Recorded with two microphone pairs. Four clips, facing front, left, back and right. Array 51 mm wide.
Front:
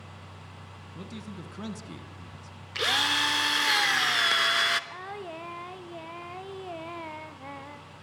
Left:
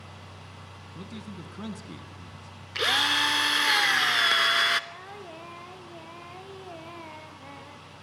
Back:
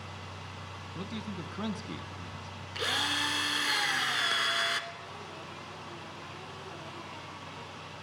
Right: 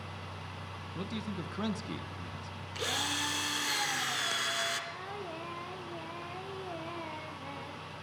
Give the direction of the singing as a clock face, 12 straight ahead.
12 o'clock.